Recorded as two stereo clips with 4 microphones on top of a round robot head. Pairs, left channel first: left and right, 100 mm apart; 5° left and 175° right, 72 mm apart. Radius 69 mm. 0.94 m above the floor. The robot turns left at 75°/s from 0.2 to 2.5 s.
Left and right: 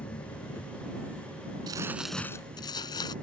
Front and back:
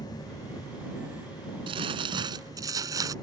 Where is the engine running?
55° left; by 3.2 s 120° right.